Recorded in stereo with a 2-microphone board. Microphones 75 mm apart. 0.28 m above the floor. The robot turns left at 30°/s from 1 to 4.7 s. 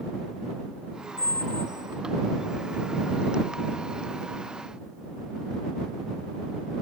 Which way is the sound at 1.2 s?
60° right (ahead or behind).